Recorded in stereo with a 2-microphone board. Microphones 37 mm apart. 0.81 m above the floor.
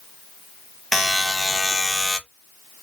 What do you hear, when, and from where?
0.9 s a buzzer: 5° right (ahead or behind), 0.6 m